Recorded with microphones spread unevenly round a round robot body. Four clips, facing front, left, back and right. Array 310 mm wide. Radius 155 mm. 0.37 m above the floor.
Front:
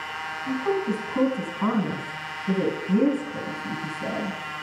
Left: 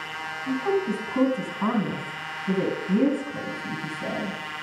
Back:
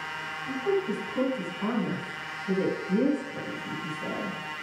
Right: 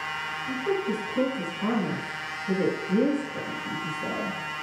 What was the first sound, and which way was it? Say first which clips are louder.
A woman speaking: left 3 dB, front 2 dB; 45° left.